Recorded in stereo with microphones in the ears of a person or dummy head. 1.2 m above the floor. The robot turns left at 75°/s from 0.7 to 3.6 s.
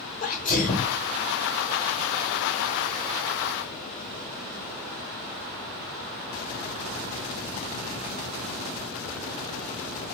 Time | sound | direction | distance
0.2 | a sneeze | 40° left (ahead or behind) | 1.3 m